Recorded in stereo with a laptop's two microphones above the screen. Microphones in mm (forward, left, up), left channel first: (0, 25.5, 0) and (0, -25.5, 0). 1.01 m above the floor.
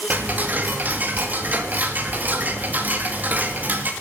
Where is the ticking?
35° right (ahead or behind), 1.8 m.